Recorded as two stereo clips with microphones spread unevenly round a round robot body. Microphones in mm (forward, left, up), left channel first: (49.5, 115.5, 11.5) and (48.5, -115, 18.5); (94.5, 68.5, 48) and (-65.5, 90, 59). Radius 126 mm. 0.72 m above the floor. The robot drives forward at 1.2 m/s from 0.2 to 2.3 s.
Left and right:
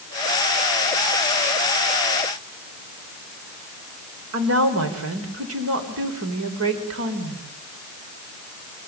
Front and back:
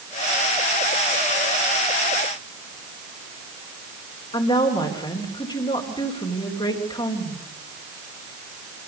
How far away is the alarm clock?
No alarm clock in this recording.